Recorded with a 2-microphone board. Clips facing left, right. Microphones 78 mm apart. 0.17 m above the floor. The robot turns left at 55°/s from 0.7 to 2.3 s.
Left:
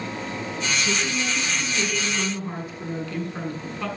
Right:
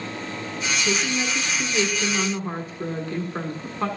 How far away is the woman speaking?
About 1.4 m.